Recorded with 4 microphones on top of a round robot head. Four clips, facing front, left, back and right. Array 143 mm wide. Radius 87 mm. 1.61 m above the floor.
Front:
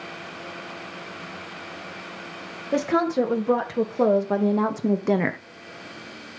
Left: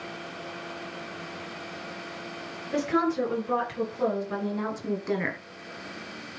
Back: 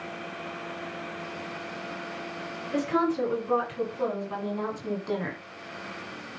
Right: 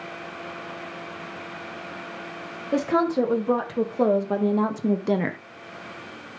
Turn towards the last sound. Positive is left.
turn(degrees=-30)